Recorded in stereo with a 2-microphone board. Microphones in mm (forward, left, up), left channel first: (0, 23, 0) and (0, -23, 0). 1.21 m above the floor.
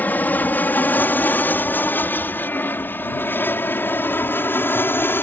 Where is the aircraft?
40° left (ahead or behind); by 5.2 s 50° left (ahead or behind).